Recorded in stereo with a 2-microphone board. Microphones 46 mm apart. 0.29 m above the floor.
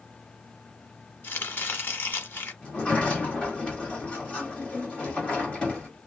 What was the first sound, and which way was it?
Chopping, 50° left (ahead or behind).